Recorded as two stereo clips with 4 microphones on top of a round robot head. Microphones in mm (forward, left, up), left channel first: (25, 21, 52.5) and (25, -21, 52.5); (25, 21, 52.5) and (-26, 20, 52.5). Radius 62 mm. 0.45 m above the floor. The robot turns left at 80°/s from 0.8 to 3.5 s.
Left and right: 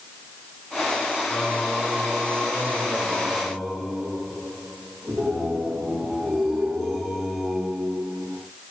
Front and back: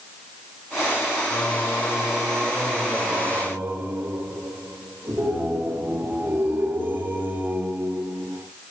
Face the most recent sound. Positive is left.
turn(degrees=-160)